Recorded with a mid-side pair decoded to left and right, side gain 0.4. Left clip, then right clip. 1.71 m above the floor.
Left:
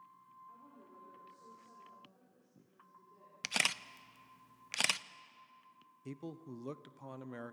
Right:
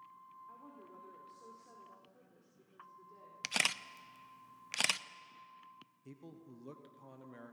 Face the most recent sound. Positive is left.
turn(degrees=60)